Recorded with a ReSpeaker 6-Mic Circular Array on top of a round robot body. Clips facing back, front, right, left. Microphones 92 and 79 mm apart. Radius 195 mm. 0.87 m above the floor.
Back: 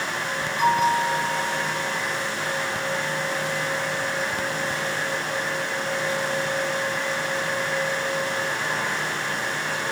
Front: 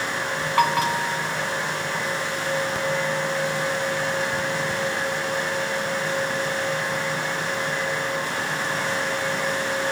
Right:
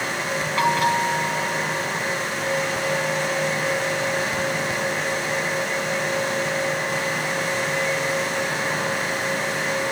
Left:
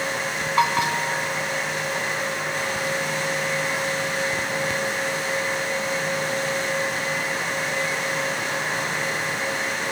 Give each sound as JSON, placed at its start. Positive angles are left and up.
{"t": 0.6, "sound": "a bell", "azimuth_deg": 25, "distance_m": 2.5}